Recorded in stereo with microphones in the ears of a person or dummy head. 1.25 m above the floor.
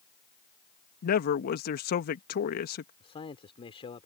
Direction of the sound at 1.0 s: 65° left (ahead or behind).